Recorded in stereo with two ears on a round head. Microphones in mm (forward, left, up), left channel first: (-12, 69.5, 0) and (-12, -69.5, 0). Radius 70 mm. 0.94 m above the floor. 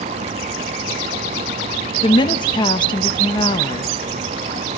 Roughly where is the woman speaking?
Left.